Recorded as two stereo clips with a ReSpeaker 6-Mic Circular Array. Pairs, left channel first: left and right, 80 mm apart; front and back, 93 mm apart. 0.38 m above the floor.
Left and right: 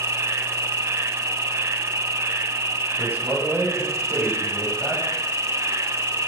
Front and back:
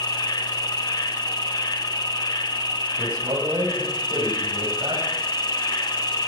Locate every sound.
0.0 s an insect: 40° right, 0.9 m
3.0 s a man speaking: 155° right, 10 m